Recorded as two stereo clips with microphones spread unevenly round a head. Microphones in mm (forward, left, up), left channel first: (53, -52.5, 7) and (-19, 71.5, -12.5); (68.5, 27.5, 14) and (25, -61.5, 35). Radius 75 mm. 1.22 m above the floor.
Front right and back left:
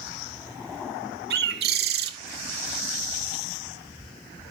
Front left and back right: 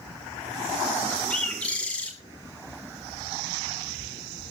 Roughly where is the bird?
Behind left.